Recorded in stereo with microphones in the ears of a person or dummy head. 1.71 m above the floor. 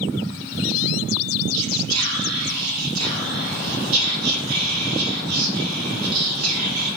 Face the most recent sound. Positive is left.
turn(degrees=-85)